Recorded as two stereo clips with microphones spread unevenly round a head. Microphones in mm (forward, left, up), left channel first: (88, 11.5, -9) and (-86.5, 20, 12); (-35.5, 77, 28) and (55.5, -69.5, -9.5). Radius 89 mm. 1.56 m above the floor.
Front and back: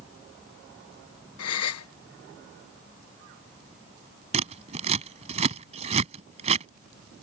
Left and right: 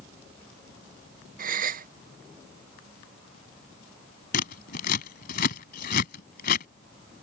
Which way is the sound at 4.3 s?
135° left.